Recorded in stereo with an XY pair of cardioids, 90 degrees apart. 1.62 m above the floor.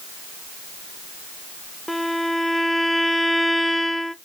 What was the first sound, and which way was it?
A violin, 10° left.